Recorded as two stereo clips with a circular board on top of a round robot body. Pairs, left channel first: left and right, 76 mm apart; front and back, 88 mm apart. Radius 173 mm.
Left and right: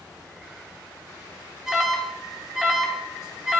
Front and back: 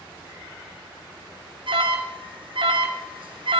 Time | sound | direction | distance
1.7 | an alarm | 170° right | 2 m